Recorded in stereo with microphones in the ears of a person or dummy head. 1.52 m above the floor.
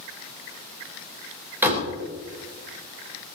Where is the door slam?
5° right (ahead or behind), 4 m.